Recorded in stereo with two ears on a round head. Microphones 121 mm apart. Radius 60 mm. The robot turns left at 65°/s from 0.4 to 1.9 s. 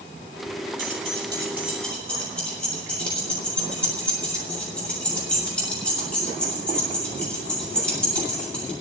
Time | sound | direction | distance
0.8 | keys jangling | 65° right (ahead or behind) | 7 m